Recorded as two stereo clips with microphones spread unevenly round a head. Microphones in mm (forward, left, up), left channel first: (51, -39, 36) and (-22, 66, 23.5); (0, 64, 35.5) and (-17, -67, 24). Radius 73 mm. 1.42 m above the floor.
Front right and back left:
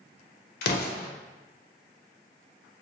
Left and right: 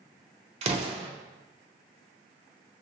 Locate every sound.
0.6 s an explosion: 50° right, 0.5 m